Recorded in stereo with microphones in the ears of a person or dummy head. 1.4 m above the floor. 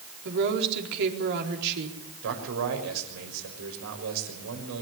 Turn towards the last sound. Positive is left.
turn(degrees=-85)